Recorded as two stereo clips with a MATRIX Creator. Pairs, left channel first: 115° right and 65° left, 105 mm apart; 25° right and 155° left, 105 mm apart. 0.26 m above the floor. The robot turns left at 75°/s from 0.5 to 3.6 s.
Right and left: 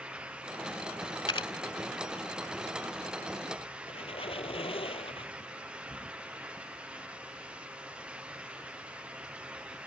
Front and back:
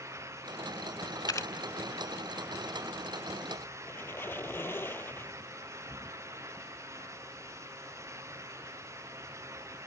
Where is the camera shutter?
70° right; by 1.5 s 90° right.